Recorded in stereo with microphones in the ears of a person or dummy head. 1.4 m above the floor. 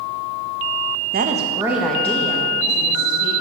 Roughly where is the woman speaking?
Right.